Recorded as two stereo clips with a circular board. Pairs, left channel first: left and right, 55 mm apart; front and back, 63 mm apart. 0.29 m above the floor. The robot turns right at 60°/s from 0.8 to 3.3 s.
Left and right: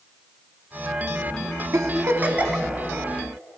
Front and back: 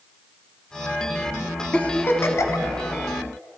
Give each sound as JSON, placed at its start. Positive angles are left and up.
{"t": 1.7, "sound": "a giggle", "azimuth_deg": -70, "distance_m": 0.7}